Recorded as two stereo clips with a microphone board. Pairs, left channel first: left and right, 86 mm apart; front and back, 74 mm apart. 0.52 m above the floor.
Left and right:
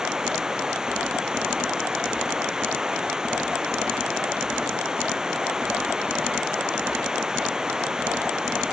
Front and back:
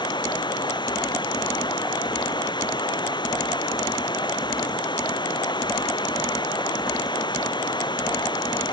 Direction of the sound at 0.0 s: 10° right.